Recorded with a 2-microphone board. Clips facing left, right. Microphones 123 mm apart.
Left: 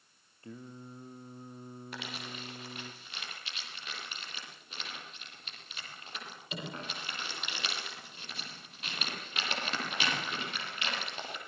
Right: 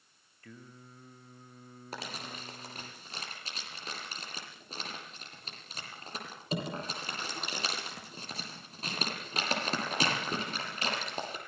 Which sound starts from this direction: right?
Crumpling, at 1.9 s.